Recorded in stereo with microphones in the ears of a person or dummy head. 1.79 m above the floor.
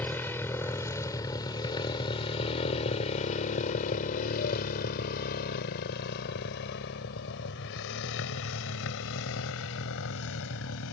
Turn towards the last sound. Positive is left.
turn(degrees=80)